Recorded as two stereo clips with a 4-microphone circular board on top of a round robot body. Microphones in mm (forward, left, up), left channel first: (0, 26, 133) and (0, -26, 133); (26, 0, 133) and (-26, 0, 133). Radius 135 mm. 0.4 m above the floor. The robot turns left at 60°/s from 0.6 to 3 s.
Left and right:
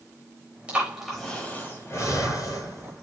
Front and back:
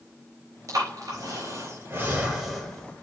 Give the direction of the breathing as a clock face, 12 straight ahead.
5 o'clock.